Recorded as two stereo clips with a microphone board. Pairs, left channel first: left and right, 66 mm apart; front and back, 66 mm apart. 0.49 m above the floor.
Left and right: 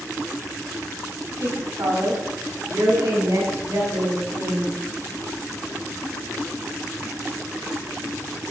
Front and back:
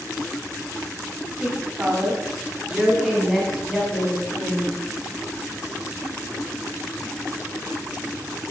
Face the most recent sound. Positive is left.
turn(degrees=-80)